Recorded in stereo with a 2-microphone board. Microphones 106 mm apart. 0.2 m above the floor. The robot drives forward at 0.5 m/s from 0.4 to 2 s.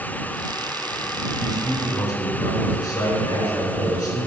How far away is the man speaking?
About 2.5 m.